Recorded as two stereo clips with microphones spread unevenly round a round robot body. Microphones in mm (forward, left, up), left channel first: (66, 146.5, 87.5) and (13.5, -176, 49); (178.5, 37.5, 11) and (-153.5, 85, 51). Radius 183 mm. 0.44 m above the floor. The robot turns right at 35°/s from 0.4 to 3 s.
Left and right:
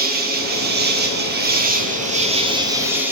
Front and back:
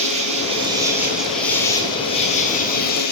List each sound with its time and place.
0.0 s an insect: 120° right, 1.9 m; by 3.1 s 30° right, 1.9 m